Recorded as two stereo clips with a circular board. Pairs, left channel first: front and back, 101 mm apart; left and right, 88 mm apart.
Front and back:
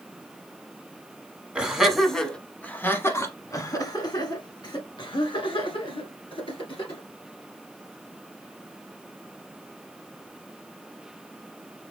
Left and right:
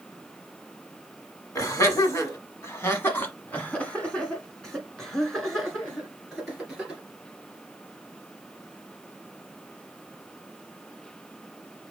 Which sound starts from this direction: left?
Laughter, at 1.6 s.